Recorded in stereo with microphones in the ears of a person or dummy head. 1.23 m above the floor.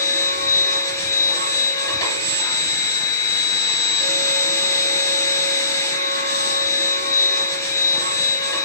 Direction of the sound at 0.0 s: 20° left (ahead or behind).